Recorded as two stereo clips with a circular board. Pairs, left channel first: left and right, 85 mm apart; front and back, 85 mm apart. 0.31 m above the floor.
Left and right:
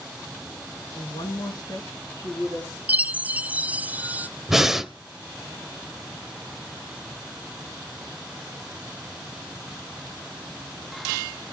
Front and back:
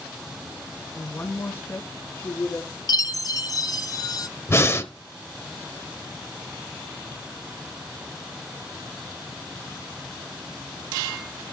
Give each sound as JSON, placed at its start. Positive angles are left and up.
{"t": 0.9, "sound": "a woman speaking", "azimuth_deg": 70, "distance_m": 3.5}
{"t": 2.9, "sound": "a chime", "azimuth_deg": -25, "distance_m": 0.5}
{"t": 4.5, "sound": "breathing", "azimuth_deg": -10, "distance_m": 0.9}